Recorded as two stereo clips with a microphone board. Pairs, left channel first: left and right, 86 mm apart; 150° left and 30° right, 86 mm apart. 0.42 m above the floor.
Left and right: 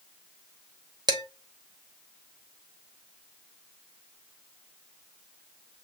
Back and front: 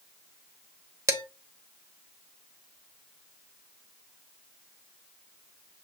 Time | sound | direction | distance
1.1 | dishes clattering | 75° right | 0.9 m